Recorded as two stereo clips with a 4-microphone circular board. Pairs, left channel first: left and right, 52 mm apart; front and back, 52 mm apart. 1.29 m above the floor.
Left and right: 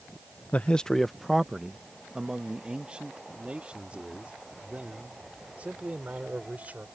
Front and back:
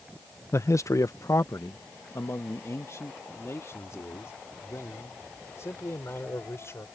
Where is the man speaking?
30° left; by 6.8 s 30° right.